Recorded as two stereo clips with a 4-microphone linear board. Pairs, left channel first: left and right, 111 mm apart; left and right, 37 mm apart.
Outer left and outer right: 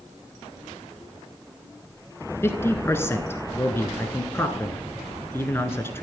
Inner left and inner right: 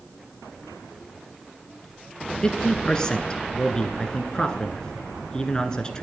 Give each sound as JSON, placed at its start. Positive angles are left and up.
{"t": 2.4, "sound": "a man speaking", "side_deg": 20, "distance_m": 1.1}